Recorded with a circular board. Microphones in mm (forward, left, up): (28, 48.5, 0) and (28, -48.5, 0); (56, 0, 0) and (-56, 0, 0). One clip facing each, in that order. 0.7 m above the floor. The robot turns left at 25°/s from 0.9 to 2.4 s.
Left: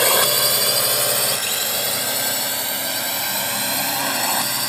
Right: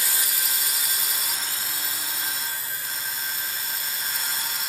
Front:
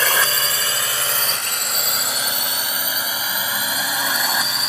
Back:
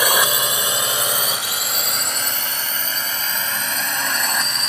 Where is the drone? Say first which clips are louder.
Left 14 dB, back 2 dB; 105° left; by 4.7 s 85° left.